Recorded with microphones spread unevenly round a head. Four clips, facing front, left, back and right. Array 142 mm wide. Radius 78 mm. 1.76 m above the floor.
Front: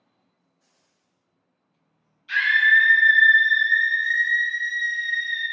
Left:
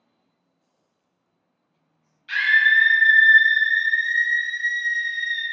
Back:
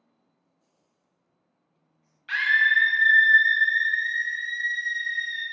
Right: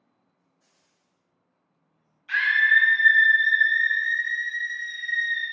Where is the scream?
170° right, 0.8 m; by 5.4 s 125° left, 1.8 m.